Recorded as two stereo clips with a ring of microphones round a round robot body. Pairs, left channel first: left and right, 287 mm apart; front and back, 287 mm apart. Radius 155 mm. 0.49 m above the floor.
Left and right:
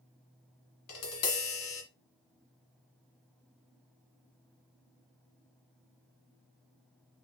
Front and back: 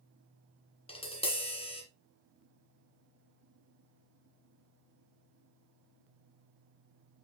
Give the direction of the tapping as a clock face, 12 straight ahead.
10 o'clock.